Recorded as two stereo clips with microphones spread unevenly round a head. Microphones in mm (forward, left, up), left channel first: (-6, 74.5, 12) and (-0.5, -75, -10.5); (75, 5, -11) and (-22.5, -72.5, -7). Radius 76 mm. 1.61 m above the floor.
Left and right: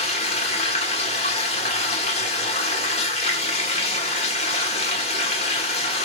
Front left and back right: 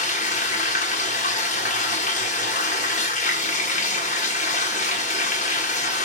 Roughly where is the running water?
Ahead left.